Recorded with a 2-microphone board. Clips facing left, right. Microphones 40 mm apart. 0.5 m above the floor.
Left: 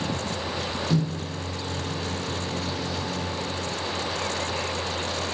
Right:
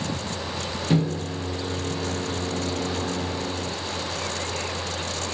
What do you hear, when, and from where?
0.9 s a microwave: 40° right (ahead or behind), 1.0 m